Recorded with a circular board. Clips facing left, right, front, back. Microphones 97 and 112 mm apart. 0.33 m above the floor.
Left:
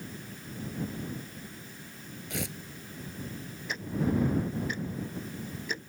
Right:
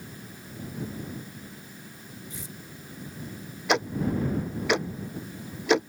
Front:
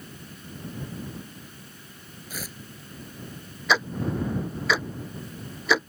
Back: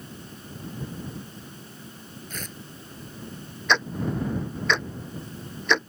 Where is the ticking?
85° right.